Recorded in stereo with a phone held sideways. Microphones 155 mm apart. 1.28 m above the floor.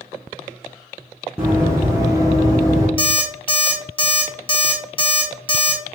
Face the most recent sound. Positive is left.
turn(degrees=35)  # may be behind; listen again after turning